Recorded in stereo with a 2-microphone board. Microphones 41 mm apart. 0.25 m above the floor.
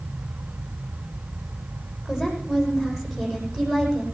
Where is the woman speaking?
5° right (ahead or behind), 10 m.